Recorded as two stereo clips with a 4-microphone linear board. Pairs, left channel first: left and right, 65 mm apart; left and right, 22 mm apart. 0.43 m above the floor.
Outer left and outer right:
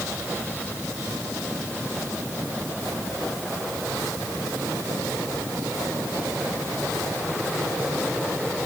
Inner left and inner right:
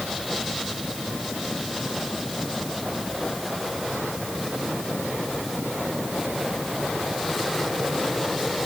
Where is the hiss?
I don't hear a hiss.